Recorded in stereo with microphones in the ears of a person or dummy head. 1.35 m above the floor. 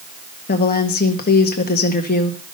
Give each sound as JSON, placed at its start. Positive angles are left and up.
{"t": 0.5, "sound": "a woman speaking", "side_deg": 50, "distance_m": 1.4}